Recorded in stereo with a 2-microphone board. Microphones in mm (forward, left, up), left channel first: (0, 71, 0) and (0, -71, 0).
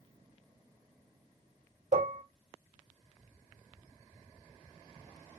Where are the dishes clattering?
55° right (ahead or behind), 1.1 m.